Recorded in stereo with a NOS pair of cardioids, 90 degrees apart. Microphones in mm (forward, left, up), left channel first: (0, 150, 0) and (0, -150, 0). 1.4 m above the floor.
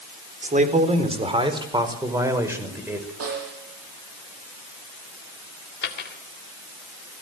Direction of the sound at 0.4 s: 30° right.